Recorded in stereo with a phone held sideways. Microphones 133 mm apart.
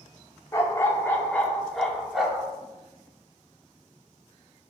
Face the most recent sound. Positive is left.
turn(degrees=-5)  # may be behind; listen again after turning